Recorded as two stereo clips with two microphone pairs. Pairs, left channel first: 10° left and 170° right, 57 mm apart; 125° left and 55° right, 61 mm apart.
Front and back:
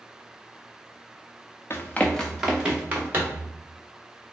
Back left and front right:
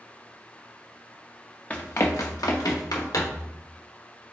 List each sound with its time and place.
1.7 s running footsteps: 60° left, 1.0 m; by 3.5 s 140° left, 2.5 m